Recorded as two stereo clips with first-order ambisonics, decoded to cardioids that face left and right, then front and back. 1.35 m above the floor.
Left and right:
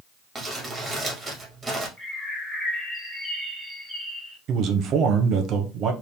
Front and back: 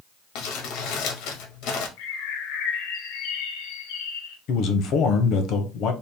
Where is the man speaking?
45° right, 0.9 m.